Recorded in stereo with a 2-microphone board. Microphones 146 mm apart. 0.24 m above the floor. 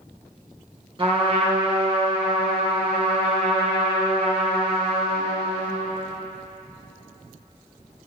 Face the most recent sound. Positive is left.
turn(degrees=-35)  # may be behind; listen again after turning